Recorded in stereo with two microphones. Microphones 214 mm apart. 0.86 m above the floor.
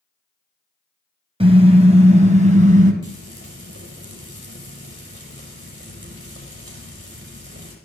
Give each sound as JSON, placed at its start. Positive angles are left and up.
{"t": 1.4, "sound": "a car horn", "side_deg": -25, "distance_m": 2.0}
{"t": 3.0, "sound": "frying", "side_deg": -60, "distance_m": 5.0}